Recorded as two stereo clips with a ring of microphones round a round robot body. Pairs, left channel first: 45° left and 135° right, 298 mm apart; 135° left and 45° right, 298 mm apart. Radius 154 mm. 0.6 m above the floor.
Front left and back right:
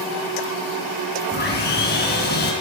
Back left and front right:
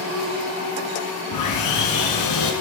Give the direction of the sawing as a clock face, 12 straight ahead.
9 o'clock.